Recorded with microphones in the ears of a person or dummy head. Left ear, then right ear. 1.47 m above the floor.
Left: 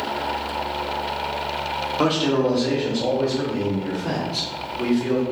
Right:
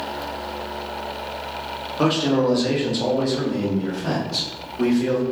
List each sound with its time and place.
2.0 s a man speaking: 5° left (ahead or behind), 0.7 m; by 5.2 s 60° right (ahead or behind), 1.3 m